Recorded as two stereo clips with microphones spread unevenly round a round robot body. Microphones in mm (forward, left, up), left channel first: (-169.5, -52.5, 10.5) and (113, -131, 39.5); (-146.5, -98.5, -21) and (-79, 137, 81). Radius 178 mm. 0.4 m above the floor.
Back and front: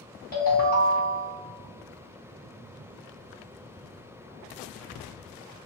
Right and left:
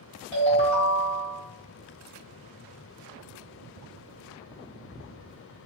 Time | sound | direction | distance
0.3 | a ringtone | 145° right | 1.4 m